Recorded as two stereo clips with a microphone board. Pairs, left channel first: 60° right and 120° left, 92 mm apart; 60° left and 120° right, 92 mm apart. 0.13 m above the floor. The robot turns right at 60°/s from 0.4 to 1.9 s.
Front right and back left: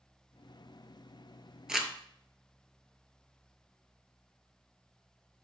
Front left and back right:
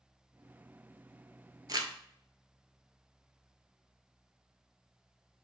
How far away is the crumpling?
About 0.6 m.